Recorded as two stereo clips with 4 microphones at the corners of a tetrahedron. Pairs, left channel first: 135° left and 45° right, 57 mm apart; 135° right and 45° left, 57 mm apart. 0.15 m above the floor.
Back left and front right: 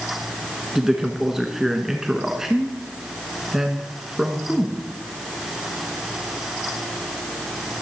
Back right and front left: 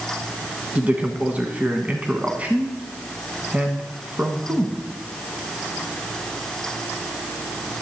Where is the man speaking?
30° left, 1.1 m.